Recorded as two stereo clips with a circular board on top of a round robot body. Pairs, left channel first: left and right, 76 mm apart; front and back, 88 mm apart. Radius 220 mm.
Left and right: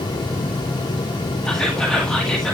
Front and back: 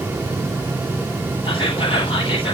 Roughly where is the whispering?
Ahead.